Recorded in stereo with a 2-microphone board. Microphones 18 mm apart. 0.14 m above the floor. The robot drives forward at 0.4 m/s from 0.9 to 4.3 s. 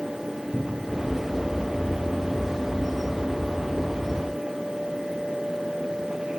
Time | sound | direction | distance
0.5 | a cupboard door | 25° left (ahead or behind) | 4.5 m